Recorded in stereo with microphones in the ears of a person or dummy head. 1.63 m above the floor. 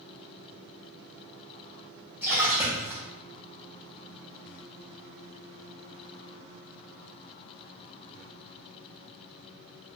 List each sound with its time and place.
2.2 s a splash: 5° right (ahead or behind), 0.6 m